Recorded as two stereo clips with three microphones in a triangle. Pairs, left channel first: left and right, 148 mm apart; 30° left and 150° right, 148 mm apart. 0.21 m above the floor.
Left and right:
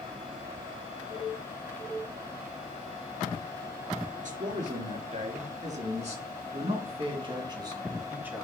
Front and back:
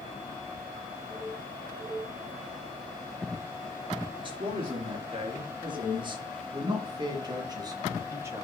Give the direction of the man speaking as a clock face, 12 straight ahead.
3 o'clock.